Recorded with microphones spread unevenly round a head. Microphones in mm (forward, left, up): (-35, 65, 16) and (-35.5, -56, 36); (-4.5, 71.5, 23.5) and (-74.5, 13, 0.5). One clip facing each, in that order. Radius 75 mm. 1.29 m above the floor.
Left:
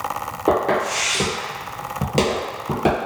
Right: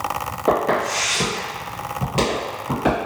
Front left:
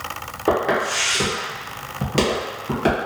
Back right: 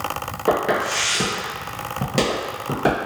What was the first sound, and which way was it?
Footsteps, straight ahead.